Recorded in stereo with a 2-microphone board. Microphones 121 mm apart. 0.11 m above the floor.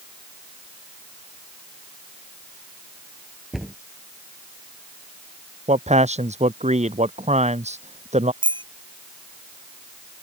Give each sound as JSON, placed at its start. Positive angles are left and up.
{"t": 3.5, "sound": "a cupboard door", "side_deg": 0}
{"t": 5.7, "sound": "a man speaking", "side_deg": -70}
{"t": 8.4, "sound": "a bicycle bell", "side_deg": -40}